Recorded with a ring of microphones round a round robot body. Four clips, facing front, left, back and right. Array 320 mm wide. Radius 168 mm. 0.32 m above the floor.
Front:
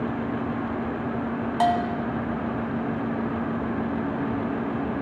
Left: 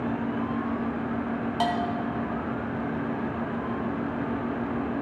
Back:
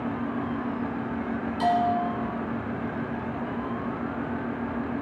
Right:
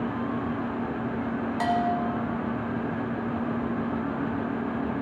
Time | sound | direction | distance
1.6 | a bell | 15° left | 1.4 m